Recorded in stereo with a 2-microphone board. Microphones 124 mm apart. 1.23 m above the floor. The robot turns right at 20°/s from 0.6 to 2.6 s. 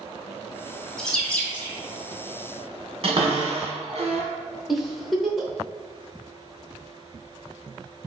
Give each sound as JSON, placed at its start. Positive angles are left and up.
{"t": 1.0, "sound": "a bird", "side_deg": 5, "distance_m": 0.9}
{"t": 3.0, "sound": "a cupboard door", "side_deg": -50, "distance_m": 1.3}
{"t": 4.7, "sound": "a giggle", "side_deg": 0, "distance_m": 0.6}